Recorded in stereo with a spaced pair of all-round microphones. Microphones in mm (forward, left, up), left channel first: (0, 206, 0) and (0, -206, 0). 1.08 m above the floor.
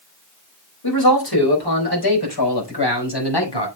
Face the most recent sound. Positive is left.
turn(degrees=85)